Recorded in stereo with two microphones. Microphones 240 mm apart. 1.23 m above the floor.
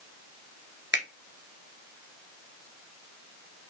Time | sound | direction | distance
0.9 | a finger snap | 50° right (ahead or behind) | 0.8 m